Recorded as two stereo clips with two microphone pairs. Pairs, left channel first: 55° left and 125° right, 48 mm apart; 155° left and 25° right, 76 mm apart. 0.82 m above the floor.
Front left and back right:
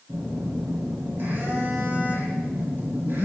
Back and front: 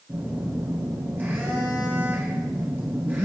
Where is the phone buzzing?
85° right, 3.5 m.